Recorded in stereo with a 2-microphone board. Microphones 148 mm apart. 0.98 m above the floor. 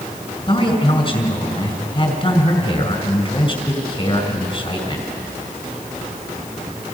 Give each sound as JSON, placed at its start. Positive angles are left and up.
{"t": 0.5, "sound": "a man speaking", "side_deg": 40, "distance_m": 4.0}